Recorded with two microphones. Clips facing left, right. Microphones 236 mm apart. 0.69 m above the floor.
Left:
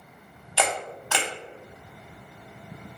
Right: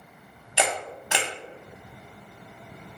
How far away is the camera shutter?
About 0.6 m.